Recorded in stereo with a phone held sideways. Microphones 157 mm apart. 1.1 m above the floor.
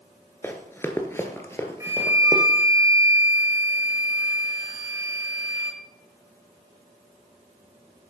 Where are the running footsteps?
15° left (ahead or behind), 1.1 m; by 2.4 s 20° left (ahead or behind), 1.8 m.